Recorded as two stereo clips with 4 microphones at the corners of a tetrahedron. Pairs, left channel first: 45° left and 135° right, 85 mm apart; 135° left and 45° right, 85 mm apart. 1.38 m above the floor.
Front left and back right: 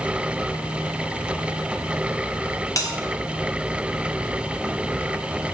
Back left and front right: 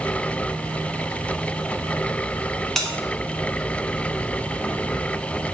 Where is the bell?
50° left, 0.6 m.